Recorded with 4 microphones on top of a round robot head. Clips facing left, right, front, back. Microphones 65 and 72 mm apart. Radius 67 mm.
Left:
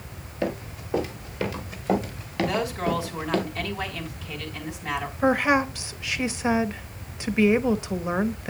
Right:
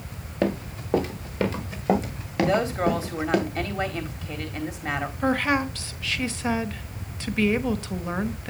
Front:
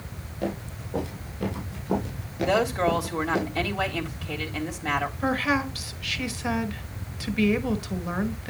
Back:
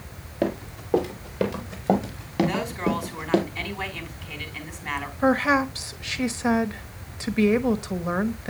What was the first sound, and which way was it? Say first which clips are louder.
Running footsteps: right 3 dB, back 5 dB; 130° right.